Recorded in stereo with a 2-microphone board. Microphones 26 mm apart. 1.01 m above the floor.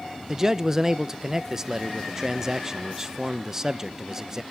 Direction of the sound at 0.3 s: 25° right (ahead or behind).